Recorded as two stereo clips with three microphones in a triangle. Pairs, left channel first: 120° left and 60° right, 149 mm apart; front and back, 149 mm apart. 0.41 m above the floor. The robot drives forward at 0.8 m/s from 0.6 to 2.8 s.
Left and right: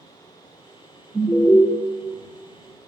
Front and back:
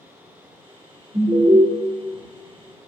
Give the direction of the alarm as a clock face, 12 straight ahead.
6 o'clock.